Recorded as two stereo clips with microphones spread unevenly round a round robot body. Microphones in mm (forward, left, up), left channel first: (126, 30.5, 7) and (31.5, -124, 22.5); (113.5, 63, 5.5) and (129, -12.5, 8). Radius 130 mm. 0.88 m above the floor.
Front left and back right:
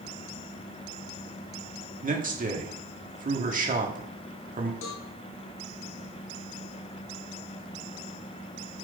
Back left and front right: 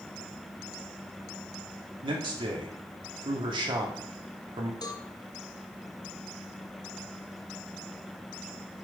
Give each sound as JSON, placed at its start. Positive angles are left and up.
{"t": 2.0, "sound": "a man speaking", "azimuth_deg": -75, "distance_m": 2.5}
{"t": 4.8, "sound": "a cowbell", "azimuth_deg": 75, "distance_m": 1.9}